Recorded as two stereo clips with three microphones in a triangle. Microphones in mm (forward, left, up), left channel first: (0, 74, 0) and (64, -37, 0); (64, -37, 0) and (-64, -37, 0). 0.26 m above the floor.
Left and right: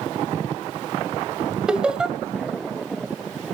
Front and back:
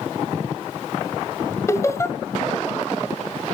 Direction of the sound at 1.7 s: 15° left.